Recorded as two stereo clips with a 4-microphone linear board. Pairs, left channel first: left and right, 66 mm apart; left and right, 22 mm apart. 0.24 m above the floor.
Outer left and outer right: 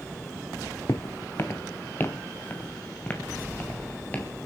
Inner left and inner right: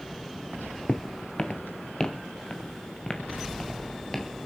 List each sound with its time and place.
0.9 s footsteps: 50° left (ahead or behind), 0.8 m; by 4.5 s 25° left (ahead or behind), 3.5 m